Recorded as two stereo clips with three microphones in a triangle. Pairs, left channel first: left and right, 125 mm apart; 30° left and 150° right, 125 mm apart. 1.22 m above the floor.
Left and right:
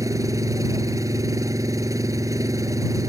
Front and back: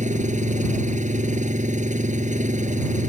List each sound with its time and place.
0.0 s an engine running: 155° right